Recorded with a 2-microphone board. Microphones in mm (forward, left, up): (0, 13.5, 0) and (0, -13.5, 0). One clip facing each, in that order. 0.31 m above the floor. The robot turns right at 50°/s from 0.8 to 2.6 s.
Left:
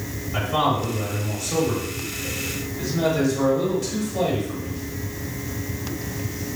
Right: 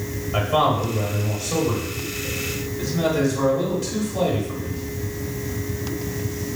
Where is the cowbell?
No cowbell in this recording.